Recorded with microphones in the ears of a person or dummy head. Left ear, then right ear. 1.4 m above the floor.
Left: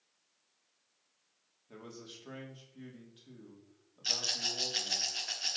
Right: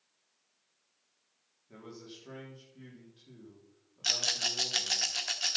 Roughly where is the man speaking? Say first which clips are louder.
Even; left.